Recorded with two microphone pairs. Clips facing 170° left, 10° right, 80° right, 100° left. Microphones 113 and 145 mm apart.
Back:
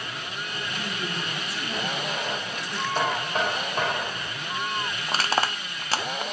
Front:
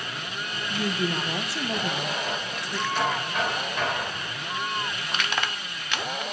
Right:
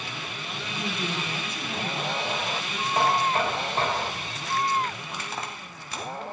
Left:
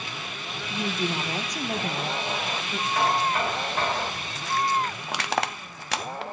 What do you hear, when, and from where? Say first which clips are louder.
0.7 s a woman speaking: front 8 dB, left 4 dB; 35° left, 1.2 m; by 2.9 s 65° left, 2 m
3.0 s knocking: back 2 dB, right 1 dB; 135° right, 4.5 m
5.1 s crushing: back 6 dB, left 7 dB; 115° left, 0.6 m